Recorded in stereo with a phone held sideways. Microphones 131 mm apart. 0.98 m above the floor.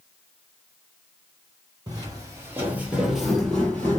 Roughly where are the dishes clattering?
I don't hear dishes clattering.